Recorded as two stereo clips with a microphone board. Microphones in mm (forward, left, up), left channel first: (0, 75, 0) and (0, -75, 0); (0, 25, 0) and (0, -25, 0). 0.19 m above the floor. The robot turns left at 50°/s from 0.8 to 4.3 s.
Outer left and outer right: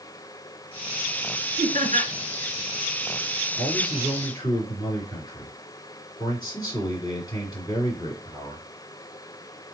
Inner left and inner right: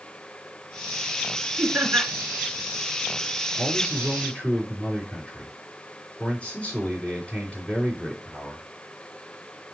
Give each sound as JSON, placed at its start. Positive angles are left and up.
{"t": 1.6, "sound": "laughter", "side_deg": -60, "distance_m": 3.0}
{"t": 3.6, "sound": "a man speaking", "azimuth_deg": -175, "distance_m": 3.0}